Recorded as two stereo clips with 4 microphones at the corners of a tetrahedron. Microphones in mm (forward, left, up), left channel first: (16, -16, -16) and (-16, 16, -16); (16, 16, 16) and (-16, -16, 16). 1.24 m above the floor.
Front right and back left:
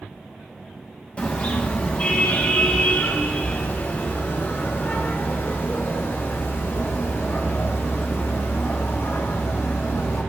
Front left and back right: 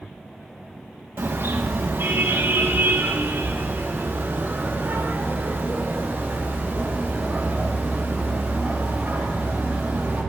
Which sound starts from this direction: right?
A car horn, at 1.2 s.